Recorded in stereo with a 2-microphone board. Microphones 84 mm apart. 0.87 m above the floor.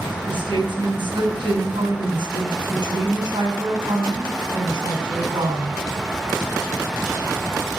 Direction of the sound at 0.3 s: 80° right.